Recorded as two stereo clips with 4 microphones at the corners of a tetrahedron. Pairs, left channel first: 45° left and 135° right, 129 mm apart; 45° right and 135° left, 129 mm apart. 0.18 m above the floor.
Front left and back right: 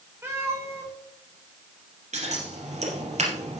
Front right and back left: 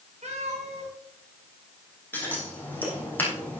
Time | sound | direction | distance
0.2 | a cat meowing | 160° left | 7.5 m
2.1 | scissors | 120° right | 4 m